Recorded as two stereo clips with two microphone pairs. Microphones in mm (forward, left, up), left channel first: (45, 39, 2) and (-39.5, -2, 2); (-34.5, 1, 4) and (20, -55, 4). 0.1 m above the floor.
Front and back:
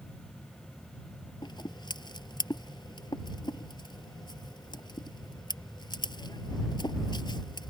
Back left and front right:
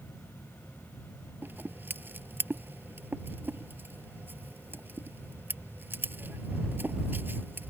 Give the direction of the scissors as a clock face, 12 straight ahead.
12 o'clock.